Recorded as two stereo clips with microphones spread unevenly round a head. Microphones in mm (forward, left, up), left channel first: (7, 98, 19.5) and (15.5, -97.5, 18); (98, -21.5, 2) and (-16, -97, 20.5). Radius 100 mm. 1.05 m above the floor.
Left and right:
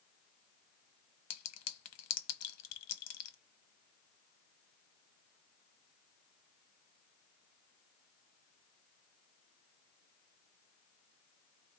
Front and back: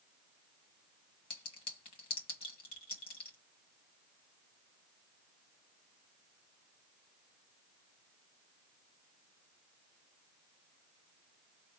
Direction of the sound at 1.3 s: 100° left.